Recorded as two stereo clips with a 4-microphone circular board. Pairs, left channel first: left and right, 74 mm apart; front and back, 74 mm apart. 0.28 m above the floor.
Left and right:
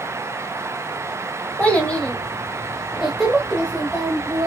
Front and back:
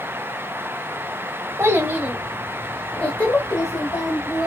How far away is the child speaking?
About 1.2 m.